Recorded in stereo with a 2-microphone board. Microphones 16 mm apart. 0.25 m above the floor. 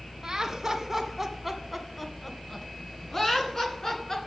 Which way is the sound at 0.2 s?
35° right (ahead or behind).